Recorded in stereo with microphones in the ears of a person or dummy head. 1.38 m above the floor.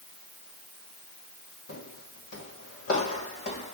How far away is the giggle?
No giggle in this recording.